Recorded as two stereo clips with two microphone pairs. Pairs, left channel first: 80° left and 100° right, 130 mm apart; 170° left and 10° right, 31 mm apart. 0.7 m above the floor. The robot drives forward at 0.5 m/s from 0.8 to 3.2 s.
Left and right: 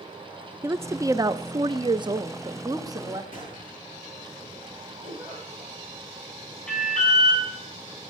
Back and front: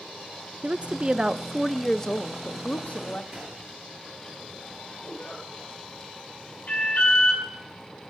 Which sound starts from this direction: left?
A gunshot, at 3.3 s.